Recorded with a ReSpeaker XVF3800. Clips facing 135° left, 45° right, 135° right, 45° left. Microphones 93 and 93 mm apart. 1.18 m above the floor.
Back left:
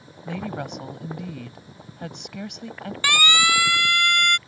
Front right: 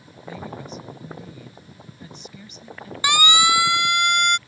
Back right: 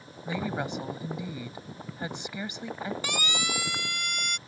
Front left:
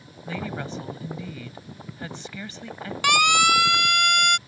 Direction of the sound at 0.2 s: 150° left.